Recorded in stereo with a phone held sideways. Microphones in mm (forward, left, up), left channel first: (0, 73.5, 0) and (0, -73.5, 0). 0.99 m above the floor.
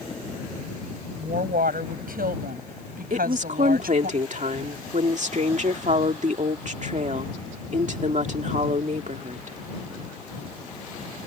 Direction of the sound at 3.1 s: 55° right (ahead or behind).